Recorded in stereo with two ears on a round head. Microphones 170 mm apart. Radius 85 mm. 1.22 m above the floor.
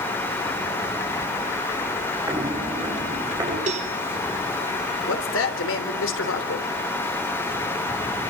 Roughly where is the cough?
No cough in this recording.